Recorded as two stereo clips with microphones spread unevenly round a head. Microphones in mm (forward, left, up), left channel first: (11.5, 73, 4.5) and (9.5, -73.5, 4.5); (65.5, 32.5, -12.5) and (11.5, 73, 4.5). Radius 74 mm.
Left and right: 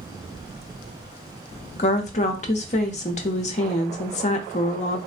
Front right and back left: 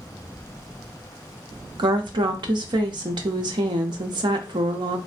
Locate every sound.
1.8 s a woman speaking: 135° left, 0.6 m